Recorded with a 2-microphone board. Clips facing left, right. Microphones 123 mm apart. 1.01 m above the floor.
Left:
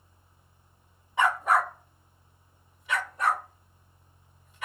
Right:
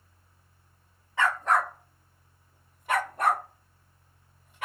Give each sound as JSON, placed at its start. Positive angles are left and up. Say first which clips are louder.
{"t": 1.2, "sound": "a dog barking", "louder": "left 1 dB", "side_deg": 20, "distance_m": 0.7}